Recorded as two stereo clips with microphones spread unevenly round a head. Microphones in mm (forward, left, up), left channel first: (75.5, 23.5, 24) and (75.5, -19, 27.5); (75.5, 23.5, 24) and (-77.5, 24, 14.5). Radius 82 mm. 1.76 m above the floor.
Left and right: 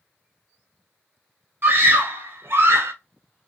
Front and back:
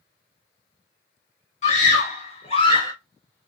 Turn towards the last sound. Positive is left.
turn(degrees=-70)